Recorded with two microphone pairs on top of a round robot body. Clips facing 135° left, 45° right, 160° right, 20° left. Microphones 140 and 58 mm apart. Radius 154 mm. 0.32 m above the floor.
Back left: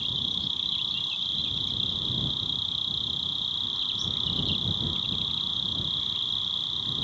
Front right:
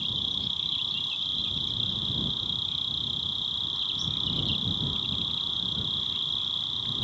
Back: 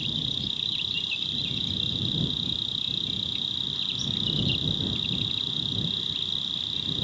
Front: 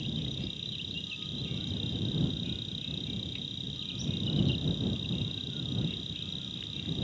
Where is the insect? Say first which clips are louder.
Even, back 3 dB; 130° right.